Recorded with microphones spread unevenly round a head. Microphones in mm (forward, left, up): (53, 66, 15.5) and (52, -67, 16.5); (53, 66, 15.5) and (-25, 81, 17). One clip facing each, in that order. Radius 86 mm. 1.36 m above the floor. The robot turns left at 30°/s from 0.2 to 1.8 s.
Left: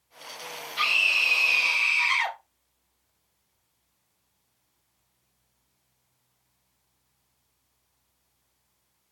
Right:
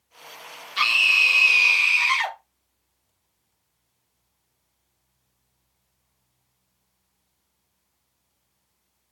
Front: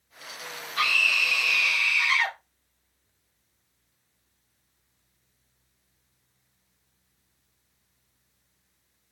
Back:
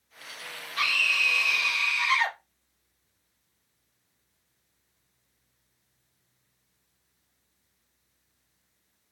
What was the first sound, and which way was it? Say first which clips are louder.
A scream: right 5 dB, front 2 dB; 85° right.